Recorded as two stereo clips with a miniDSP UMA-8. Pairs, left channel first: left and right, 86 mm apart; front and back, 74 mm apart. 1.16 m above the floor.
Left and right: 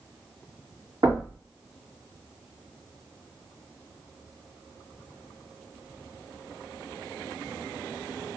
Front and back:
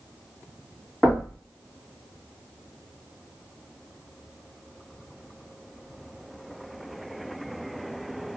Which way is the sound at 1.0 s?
85° right.